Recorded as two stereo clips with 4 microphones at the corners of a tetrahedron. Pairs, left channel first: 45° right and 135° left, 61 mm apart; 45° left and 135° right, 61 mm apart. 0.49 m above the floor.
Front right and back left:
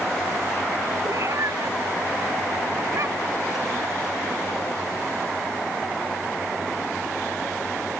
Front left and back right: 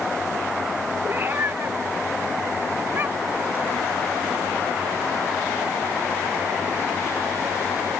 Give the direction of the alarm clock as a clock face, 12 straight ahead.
No alarm clock in this recording.